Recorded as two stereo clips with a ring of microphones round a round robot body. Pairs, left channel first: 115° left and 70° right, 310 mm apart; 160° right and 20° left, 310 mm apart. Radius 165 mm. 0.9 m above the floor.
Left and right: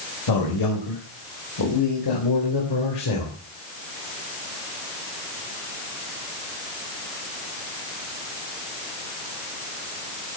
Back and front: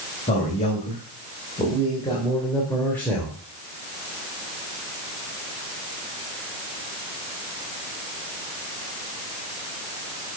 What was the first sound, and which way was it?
A man speaking, 135° left.